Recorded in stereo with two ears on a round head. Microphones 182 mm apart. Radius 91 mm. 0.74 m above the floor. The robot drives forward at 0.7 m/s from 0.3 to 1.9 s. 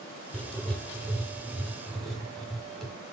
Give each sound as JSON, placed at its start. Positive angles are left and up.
{"t": 0.3, "sound": "writing", "side_deg": 5, "distance_m": 0.6}